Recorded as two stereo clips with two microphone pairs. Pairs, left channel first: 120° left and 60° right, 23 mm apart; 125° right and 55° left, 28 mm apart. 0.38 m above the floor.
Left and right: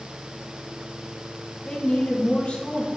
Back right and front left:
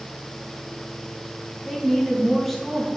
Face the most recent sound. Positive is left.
turn(degrees=150)